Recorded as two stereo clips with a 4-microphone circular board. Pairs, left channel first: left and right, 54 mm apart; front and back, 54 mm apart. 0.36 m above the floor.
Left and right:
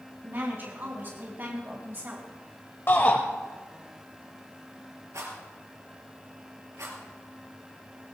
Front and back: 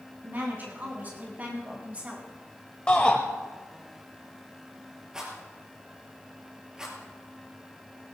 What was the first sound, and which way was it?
A woman speaking, 135° right.